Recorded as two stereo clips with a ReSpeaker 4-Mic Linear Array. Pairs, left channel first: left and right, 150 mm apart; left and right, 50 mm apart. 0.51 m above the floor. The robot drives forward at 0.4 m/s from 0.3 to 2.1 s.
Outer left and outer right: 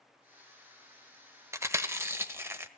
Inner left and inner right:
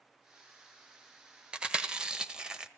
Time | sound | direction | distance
1.5 | chewing | 20° right (ahead or behind) | 1.2 m